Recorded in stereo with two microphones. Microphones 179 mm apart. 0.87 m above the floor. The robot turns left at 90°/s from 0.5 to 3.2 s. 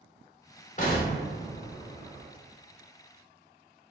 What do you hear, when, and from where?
0.8 s an explosion: 45° left (ahead or behind), 0.8 m; by 2.3 s 10° right (ahead or behind), 0.8 m